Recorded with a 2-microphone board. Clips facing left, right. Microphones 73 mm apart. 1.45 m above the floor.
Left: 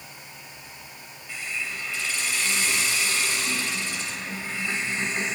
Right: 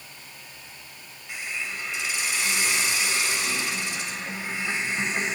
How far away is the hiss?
About 2.5 m.